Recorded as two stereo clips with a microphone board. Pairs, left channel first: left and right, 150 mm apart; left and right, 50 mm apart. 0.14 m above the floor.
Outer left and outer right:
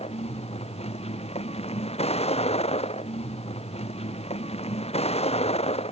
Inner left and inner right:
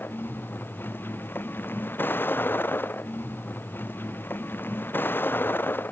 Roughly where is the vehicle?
Left.